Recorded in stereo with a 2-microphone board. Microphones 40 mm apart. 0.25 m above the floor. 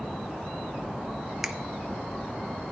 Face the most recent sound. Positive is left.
turn(degrees=-5)  # may be behind; listen again after turning